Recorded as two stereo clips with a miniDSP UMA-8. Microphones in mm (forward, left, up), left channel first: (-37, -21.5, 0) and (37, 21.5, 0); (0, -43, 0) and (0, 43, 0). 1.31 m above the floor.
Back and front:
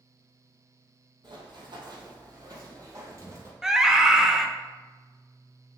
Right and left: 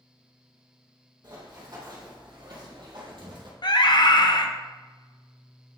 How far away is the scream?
About 1.0 m.